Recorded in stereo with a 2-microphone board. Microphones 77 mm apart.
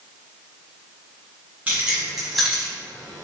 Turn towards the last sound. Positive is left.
turn(degrees=35)  # may be behind; listen again after turning